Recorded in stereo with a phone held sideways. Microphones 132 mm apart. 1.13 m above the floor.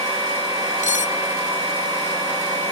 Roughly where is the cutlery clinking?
Left.